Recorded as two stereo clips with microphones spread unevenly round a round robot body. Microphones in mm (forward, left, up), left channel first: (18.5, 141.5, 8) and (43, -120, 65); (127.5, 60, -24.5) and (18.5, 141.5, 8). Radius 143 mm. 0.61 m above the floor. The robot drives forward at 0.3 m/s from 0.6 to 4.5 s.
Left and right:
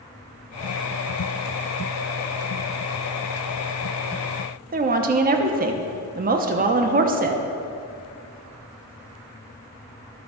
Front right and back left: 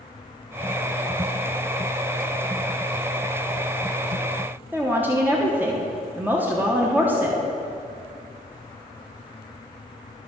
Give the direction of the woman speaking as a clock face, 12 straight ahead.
4 o'clock.